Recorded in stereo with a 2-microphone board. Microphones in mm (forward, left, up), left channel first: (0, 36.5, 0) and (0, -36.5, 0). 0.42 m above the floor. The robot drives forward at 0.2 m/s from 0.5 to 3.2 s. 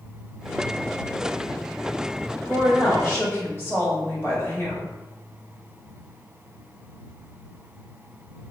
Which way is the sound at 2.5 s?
30° left (ahead or behind).